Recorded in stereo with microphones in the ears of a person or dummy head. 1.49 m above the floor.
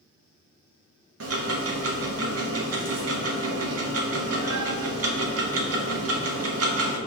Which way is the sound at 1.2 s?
70° right (ahead or behind).